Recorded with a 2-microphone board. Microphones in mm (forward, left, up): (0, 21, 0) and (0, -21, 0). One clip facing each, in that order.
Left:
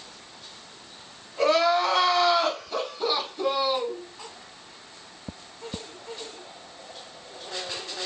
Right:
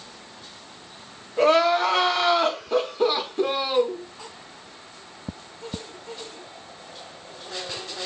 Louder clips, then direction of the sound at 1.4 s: Right 3 dB; 45° right (ahead or behind).